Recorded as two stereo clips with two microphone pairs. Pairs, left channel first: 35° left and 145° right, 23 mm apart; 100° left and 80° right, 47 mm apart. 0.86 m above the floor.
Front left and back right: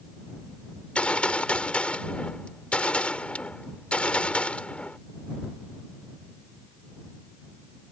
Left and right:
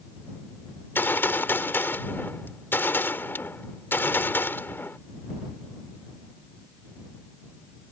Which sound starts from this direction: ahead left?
A gunshot, at 0.8 s.